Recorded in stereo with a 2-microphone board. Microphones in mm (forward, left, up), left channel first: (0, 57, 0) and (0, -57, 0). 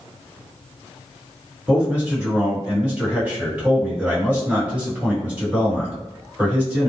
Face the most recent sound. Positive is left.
turn(degrees=-10)  # may be behind; listen again after turning